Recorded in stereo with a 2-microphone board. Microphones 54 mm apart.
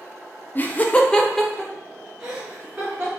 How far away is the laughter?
About 0.5 m.